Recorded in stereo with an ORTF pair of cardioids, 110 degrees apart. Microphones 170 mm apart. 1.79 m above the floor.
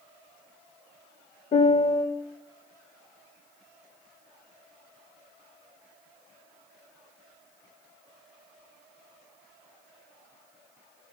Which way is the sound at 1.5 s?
40° left.